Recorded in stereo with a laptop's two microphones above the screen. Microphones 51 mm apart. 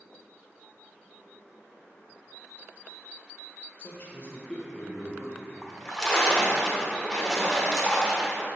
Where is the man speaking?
45° left (ahead or behind), 0.9 m; by 5.5 s 20° right (ahead or behind), 0.8 m.